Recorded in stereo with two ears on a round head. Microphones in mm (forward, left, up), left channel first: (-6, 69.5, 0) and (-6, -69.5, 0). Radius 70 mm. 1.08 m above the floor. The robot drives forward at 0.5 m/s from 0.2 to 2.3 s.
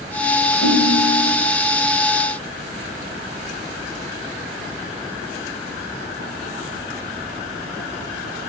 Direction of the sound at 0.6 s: 15° left (ahead or behind).